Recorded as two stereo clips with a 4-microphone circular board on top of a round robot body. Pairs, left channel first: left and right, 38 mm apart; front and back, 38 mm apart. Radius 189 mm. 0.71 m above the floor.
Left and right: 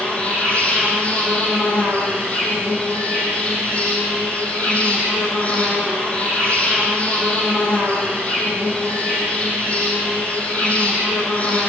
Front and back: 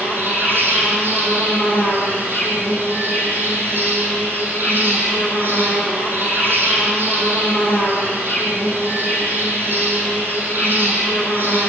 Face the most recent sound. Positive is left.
turn(degrees=145)